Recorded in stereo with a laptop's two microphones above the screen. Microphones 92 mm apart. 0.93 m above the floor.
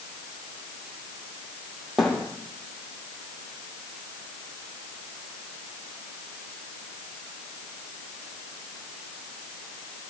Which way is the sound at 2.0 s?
Centre (ahead or behind).